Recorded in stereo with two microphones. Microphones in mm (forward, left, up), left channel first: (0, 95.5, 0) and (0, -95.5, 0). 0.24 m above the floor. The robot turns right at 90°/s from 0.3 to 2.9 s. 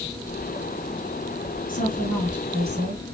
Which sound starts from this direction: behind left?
A woman speaking, at 1.7 s.